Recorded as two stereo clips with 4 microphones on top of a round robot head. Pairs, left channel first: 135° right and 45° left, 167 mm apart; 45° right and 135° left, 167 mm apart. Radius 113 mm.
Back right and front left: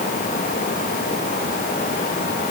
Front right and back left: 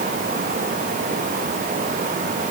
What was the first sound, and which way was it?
Only background noise.